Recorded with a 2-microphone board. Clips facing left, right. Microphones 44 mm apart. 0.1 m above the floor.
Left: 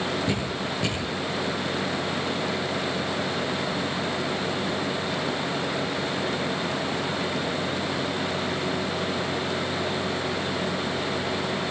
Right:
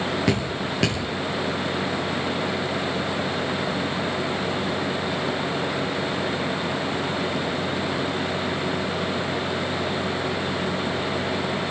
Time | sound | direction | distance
0.3 | dripping | 75° right (ahead or behind) | 7.5 m